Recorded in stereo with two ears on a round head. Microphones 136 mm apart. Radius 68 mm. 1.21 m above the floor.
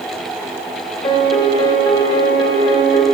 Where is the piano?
30° left (ahead or behind), 1.2 m.